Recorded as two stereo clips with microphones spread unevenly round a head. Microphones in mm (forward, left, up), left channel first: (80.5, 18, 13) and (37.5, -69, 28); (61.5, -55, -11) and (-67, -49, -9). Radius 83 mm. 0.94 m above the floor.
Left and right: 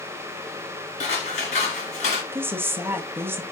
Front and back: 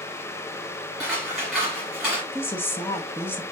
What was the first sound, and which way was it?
Scissors, 90° left.